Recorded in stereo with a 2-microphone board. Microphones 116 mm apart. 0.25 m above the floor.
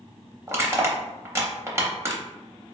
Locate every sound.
0.5 s crushing: 25° right (ahead or behind), 0.6 m